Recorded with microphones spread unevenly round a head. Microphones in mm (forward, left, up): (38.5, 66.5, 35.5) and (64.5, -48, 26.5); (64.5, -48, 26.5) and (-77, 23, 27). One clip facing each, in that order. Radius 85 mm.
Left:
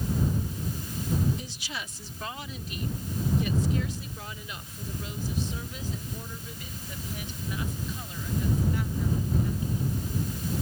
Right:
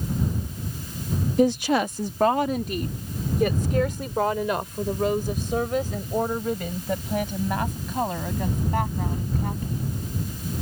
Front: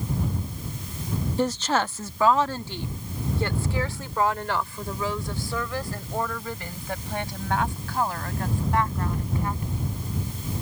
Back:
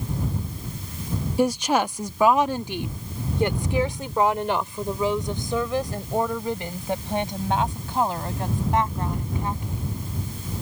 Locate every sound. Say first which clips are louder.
1.4 s a woman speaking: right 20 dB, back 4 dB; 125° right; by 9.9 s 135° right